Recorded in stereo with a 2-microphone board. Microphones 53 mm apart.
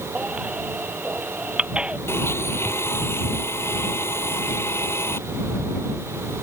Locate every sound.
0.1 s a baby crying: 20° right (ahead or behind)
2.1 s a blender: 50° left (ahead or behind)